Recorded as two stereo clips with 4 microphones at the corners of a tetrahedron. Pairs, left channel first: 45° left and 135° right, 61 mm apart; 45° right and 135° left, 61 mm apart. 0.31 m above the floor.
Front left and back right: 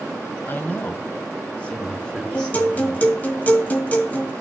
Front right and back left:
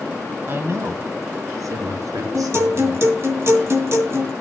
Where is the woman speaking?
90° left, 1.6 m; by 3.1 s 125° left, 4 m.